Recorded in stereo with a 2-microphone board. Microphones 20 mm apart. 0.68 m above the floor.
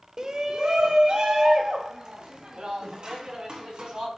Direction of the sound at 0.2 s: 30° right (ahead or behind).